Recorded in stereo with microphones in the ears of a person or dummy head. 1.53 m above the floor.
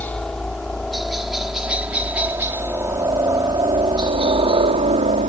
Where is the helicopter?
5° left (ahead or behind); by 5.3 s 35° right (ahead or behind).